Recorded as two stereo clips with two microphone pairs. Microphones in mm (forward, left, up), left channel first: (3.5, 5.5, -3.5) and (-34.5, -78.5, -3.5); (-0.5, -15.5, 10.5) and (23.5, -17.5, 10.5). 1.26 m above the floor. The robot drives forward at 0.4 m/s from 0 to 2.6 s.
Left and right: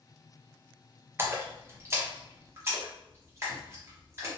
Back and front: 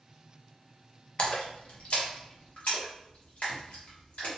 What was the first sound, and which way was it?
A splash, 160° right.